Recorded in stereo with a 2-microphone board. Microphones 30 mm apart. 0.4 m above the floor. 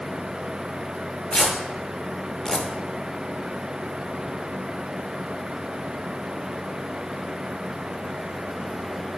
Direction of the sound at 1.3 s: 25° left (ahead or behind).